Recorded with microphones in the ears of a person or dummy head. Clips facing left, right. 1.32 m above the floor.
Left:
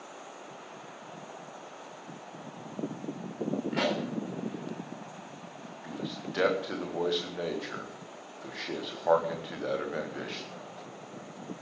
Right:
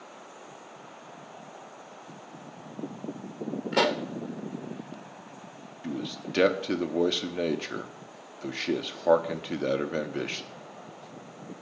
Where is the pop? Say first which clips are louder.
Right 7 dB; 60° right (ahead or behind), 0.9 m.